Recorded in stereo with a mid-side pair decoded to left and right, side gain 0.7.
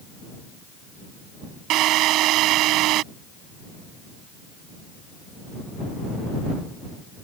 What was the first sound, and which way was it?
A drill, 55° right.